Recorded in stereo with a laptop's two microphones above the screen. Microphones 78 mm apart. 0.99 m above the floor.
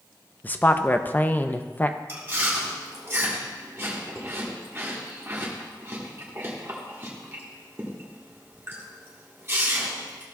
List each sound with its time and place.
0.4 s a woman speaking: 25° left (ahead or behind), 0.5 m
2.1 s chewing: 30° right (ahead or behind), 1.5 m